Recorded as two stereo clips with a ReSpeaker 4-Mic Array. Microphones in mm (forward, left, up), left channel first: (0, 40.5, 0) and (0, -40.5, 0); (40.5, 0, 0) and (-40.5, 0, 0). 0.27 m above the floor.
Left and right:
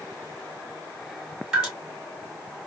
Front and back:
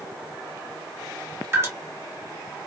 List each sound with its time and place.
1.5 s dripping: 160° right, 1.9 m